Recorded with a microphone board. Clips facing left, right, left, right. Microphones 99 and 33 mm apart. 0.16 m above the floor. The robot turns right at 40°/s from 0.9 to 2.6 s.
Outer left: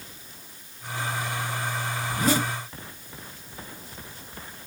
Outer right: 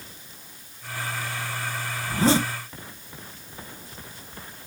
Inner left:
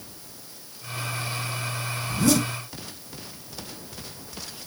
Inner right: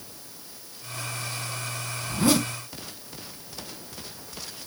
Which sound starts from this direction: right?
A zipper, at 2.1 s.